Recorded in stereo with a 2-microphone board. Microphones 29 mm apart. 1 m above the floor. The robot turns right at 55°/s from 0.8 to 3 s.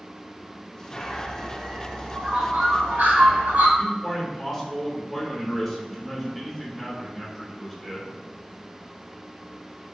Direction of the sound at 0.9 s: 155° left.